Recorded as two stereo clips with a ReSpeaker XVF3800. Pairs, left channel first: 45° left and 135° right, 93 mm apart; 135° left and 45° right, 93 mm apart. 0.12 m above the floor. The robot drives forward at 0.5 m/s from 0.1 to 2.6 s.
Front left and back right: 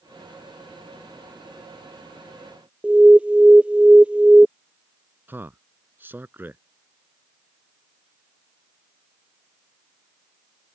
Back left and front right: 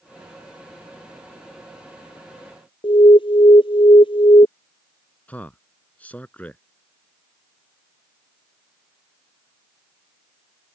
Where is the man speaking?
170° right.